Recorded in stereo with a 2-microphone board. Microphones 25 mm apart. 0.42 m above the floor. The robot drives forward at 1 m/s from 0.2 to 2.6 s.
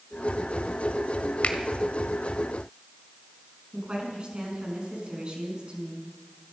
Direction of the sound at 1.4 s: 60° left (ahead or behind).